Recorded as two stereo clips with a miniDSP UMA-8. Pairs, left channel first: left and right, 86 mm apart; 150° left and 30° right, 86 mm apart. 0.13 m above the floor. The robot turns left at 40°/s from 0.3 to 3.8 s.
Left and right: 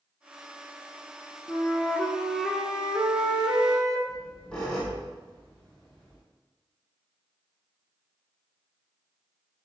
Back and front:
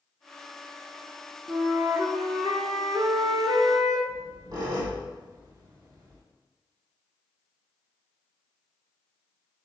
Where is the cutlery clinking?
No cutlery clinking in this recording.